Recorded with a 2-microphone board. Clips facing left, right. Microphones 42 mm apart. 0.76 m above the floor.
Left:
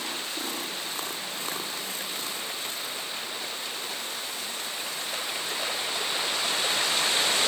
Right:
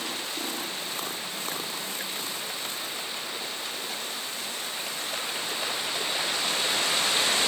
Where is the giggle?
No giggle in this recording.